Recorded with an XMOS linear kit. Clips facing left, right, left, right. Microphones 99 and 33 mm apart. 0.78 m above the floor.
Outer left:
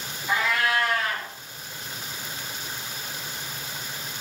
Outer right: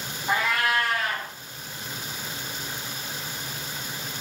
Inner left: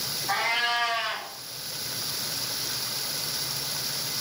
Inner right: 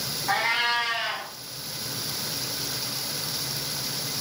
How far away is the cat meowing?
About 1.3 m.